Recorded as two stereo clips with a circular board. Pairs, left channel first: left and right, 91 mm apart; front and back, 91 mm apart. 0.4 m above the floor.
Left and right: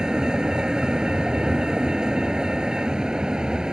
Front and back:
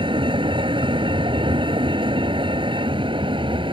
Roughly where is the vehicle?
Behind.